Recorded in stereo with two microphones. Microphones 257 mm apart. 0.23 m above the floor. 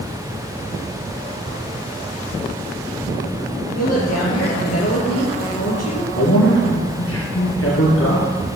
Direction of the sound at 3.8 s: 75° left (ahead or behind).